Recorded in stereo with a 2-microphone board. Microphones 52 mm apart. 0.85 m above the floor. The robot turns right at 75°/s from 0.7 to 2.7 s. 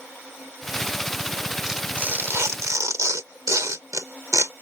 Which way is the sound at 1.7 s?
10° right (ahead or behind).